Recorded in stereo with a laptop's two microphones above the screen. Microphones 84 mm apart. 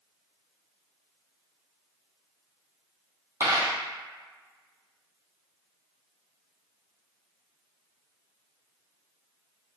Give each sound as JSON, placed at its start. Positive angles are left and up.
{"t": 3.4, "sound": "a dropped coin", "side_deg": -45, "distance_m": 1.9}